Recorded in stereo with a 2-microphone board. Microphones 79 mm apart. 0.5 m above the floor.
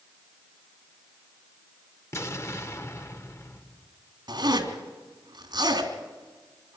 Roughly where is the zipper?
Right.